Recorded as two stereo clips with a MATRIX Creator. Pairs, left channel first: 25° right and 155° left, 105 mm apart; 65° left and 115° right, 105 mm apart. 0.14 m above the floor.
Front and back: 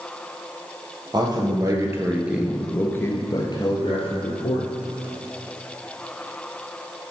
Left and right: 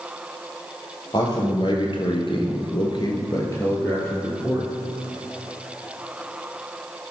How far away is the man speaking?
About 3 m.